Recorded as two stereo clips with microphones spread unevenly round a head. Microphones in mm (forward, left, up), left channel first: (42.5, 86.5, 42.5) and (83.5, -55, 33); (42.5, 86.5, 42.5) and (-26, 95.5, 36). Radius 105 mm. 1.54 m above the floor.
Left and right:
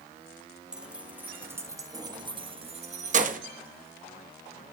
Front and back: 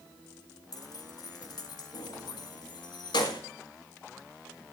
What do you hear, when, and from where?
0.7 s keys jangling: 10° left, 1.9 m; by 3.4 s 50° right, 1.3 m